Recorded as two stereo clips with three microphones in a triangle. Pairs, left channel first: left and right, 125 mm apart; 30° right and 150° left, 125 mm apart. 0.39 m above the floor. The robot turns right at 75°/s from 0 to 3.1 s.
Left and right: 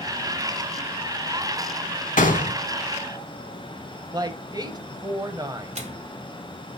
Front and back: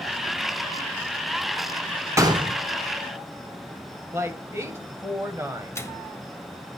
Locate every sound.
2.2 s a gunshot: 85° left, 0.9 m; by 2.6 s 115° left, 0.9 m
4.1 s a woman speaking: 140° right, 1.7 m
5.8 s a microwave: 95° right, 1.4 m